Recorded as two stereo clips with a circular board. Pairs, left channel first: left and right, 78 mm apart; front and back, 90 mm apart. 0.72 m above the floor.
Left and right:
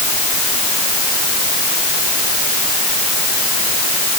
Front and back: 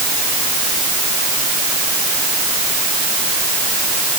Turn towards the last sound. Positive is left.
No sound to turn to.